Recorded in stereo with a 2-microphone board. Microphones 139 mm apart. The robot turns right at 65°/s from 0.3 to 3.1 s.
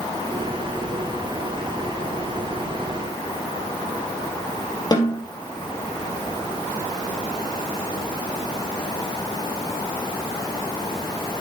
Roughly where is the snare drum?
Left.